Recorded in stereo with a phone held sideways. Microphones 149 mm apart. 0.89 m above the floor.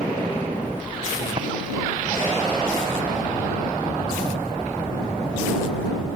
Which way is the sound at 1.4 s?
40° right (ahead or behind).